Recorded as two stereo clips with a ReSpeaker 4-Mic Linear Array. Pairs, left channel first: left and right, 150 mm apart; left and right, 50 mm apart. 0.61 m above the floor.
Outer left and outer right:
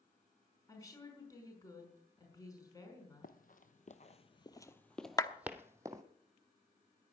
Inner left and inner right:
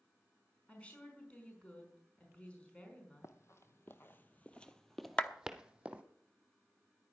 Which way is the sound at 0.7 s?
20° left (ahead or behind).